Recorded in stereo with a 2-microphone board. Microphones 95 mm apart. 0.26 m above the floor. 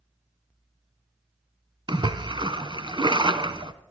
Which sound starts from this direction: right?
A splash, at 1.9 s.